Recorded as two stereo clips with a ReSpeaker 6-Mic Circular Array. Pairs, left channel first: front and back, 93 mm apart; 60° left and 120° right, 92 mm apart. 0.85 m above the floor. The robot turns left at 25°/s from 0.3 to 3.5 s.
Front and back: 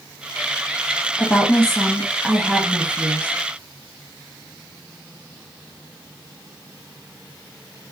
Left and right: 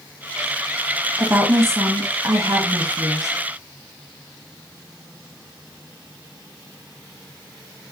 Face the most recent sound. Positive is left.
turn(degrees=-125)